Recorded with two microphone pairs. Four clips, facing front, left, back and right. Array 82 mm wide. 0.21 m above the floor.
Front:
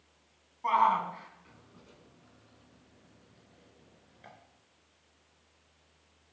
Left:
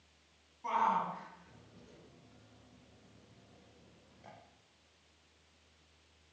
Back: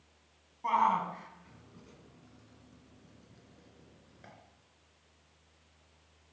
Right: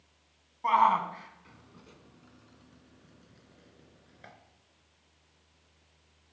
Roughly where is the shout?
Right.